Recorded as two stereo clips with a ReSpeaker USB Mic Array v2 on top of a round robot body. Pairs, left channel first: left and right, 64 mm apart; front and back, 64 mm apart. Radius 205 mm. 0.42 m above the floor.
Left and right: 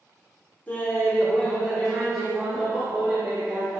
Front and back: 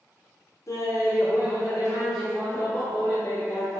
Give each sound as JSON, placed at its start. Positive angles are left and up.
{"t": 0.7, "sound": "laughter", "azimuth_deg": 30, "distance_m": 2.5}